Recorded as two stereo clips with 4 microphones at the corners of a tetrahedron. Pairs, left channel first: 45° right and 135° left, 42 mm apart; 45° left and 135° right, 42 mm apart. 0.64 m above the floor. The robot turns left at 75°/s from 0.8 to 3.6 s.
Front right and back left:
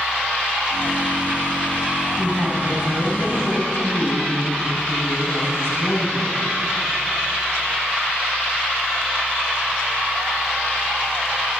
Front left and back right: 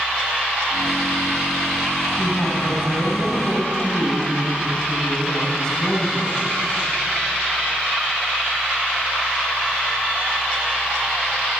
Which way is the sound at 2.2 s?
85° left.